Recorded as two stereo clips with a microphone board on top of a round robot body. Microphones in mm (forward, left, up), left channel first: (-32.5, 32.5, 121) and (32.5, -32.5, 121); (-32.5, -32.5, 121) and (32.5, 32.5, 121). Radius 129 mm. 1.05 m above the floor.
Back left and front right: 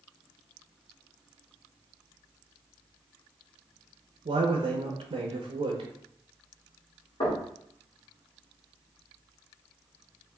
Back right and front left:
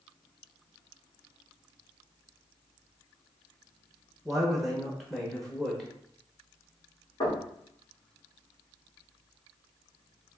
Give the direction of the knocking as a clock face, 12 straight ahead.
6 o'clock.